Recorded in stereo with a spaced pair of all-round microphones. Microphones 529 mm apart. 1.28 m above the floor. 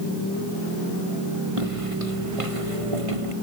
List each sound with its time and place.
1.6 s footsteps: 80° right